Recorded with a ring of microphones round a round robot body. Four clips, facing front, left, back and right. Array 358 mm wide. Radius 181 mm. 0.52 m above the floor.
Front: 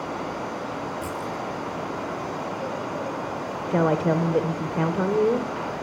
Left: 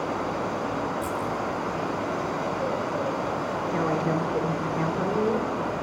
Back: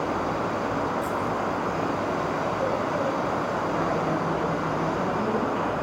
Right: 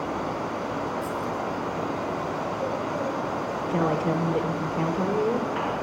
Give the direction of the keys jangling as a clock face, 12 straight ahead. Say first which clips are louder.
Left 1 dB, back 4 dB; 10 o'clock.